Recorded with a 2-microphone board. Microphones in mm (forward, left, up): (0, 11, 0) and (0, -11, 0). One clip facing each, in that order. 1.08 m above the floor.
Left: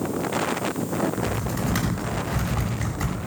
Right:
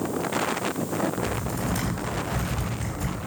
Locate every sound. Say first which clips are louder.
1.2 s typing on a keyboard: left 2 dB; 55° left (ahead or behind), 7 m